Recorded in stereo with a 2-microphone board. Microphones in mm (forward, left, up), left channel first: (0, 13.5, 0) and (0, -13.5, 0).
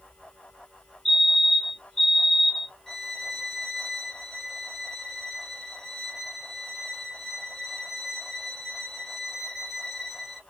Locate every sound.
1.1 s a fire alarm: 15° left (ahead or behind), 1.8 m
2.9 s a violin: 5° left (ahead or behind), 0.8 m